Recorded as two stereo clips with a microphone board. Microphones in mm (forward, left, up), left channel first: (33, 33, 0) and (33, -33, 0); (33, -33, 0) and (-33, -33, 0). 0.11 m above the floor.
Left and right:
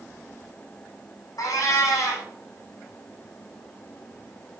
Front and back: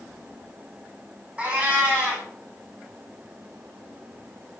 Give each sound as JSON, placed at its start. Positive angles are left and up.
{"t": 1.4, "sound": "a cat meowing", "azimuth_deg": 115, "distance_m": 1.9}